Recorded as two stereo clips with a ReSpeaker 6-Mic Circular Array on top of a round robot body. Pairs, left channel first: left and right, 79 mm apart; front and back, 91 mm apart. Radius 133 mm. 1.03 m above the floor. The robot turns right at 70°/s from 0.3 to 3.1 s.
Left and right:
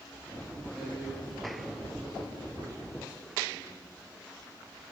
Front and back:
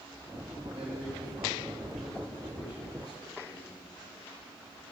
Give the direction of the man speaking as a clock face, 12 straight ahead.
6 o'clock.